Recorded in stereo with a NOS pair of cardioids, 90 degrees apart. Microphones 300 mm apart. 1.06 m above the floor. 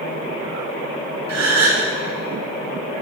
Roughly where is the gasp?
Ahead right.